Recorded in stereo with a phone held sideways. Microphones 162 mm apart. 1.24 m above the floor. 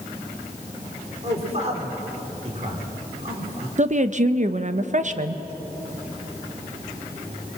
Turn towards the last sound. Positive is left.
turn(degrees=-50)  # may be behind; listen again after turning